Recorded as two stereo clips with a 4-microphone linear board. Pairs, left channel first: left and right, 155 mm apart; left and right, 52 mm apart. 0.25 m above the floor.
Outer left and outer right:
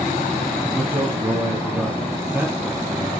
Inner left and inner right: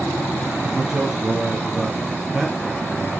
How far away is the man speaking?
About 1.8 m.